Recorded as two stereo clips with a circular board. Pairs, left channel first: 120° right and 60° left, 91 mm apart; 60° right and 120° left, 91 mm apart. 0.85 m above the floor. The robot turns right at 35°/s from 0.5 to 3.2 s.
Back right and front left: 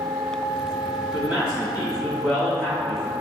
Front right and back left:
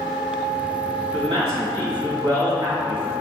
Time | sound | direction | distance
1.1 | a man speaking | 115° left | 1.6 m